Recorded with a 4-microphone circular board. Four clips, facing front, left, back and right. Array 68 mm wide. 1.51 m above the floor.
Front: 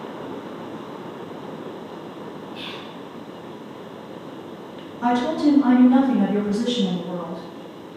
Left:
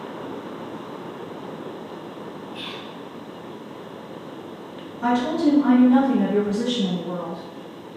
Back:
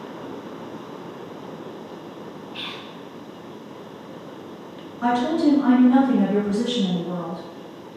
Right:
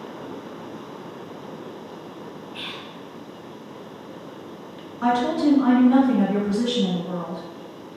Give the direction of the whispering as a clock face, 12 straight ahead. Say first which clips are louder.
Right 2 dB, even; 5 o'clock.